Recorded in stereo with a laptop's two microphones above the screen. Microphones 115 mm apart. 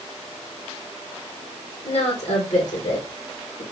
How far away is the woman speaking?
About 2.5 m.